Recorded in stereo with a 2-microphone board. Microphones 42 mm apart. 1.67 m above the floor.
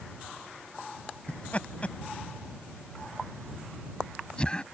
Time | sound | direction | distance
1.3 | laughter | 30° left (ahead or behind) | ?